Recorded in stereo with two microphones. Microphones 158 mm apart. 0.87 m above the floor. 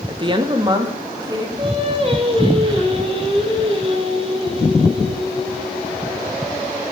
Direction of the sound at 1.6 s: 40° right (ahead or behind).